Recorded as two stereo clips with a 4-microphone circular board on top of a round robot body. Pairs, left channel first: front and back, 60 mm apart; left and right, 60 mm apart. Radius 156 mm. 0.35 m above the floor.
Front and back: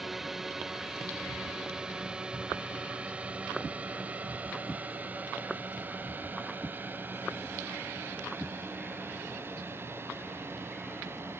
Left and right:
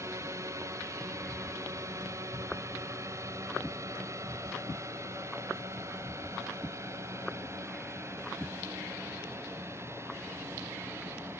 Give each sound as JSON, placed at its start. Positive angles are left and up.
{"t": 0.0, "sound": "a drone", "azimuth_deg": -95}